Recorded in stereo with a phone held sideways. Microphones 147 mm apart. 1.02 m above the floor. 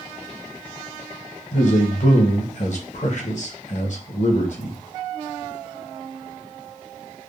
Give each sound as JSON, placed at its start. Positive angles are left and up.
{"t": 1.5, "sound": "a man speaking", "side_deg": 55, "distance_m": 0.8}